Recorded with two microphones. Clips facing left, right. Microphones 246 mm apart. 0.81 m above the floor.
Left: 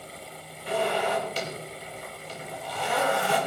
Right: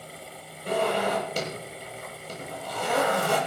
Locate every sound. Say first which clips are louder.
0.7 s a zipper: right 1 dB; 45° right (ahead or behind), 7.5 m